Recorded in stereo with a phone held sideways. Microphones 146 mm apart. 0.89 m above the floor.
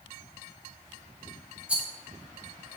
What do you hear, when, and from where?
1.7 s a rattle: 10° right (ahead or behind), 1.2 m